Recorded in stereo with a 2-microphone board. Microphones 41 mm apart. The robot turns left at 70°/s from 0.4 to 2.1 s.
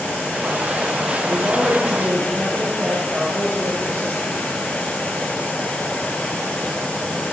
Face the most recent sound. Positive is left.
turn(degrees=-115)